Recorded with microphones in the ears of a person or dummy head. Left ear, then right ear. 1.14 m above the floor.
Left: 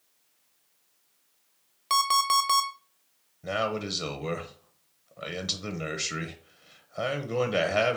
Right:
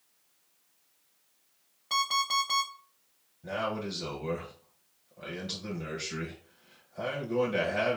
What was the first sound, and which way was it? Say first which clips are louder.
An alarm clock: left 5 dB; 45° left (ahead or behind).